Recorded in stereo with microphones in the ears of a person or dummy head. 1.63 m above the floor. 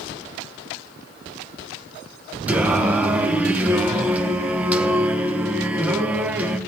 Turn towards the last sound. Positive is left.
turn(degrees=-10)  # may be behind; listen again after turning